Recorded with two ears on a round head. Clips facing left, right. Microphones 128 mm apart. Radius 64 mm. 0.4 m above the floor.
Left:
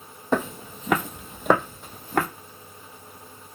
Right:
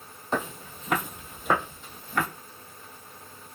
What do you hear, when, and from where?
0.3 s footsteps: 55° left (ahead or behind), 0.8 m; by 2.3 s 35° left (ahead or behind), 1.0 m